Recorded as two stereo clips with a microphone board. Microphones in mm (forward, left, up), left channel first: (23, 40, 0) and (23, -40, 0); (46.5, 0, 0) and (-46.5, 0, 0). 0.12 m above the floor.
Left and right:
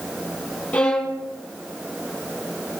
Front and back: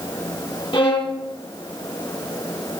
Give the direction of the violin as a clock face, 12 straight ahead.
11 o'clock.